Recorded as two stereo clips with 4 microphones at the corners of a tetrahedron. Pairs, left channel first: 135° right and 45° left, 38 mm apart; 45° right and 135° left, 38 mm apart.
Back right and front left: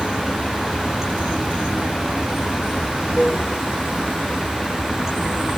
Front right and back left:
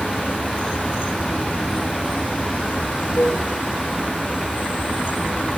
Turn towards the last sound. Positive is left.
turn(degrees=-25)